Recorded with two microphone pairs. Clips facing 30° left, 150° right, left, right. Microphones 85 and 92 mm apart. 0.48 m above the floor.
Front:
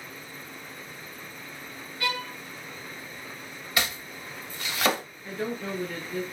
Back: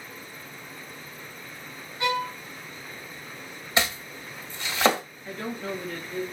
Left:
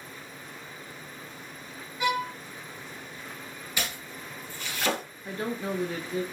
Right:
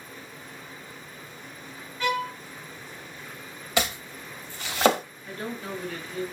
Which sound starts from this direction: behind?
A violin, at 2.0 s.